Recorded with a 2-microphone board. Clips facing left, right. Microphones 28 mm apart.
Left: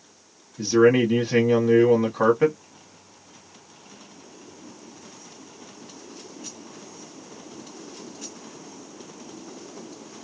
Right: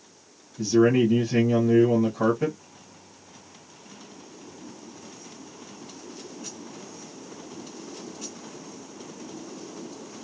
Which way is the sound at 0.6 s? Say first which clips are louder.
Left 2 dB; 40° left (ahead or behind).